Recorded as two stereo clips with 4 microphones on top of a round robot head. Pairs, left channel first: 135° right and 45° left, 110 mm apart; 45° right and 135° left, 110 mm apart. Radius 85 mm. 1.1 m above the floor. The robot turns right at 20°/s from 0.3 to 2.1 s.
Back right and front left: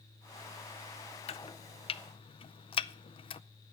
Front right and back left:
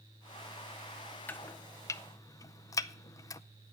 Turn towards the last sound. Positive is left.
turn(degrees=-105)